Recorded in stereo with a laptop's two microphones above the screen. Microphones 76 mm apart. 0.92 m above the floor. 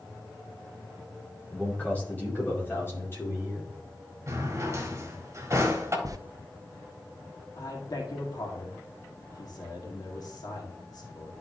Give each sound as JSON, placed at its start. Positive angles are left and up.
{"t": 1.5, "sound": "a man speaking", "side_deg": 10, "distance_m": 2.5}
{"t": 4.3, "sound": "a drawer", "side_deg": -40, "distance_m": 1.3}
{"t": 6.0, "sound": "a zipper", "side_deg": -45, "distance_m": 0.6}
{"t": 7.6, "sound": "a man speaking", "side_deg": 60, "distance_m": 2.0}